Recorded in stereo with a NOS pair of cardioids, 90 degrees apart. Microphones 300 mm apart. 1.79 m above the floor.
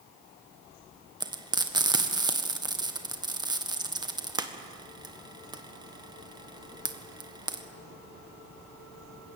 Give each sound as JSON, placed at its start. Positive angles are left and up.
{"t": 1.2, "sound": "frying", "azimuth_deg": -15, "distance_m": 1.7}